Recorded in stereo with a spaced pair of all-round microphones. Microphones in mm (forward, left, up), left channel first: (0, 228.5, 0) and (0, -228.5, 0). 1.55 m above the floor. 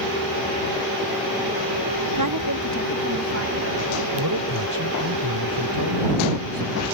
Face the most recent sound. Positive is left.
turn(degrees=-45)  # may be behind; listen again after turning